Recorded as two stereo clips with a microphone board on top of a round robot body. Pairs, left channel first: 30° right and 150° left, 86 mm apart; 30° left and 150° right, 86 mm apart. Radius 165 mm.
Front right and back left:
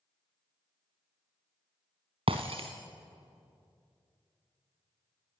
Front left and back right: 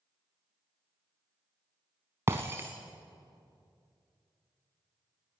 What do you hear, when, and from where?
2.3 s breaking glass: 150° left, 0.6 m